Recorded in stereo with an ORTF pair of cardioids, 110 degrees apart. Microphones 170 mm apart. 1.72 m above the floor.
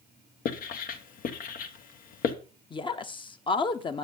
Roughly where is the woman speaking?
Ahead left.